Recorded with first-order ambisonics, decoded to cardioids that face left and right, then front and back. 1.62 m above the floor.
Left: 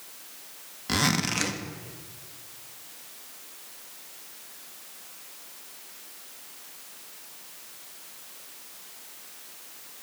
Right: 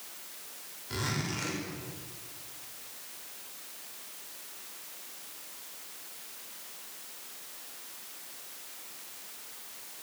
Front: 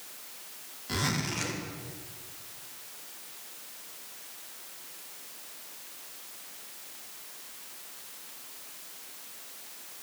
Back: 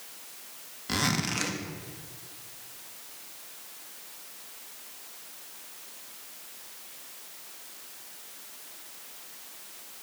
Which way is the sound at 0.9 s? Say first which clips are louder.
Left 9 dB, back 3 dB; 110° left.